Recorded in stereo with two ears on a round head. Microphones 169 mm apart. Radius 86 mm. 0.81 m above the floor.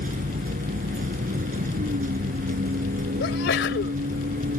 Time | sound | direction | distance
0.0 | a vehicle | 45° right (ahead or behind) | ?
3.2 | a sneeze | 60° left (ahead or behind) | ?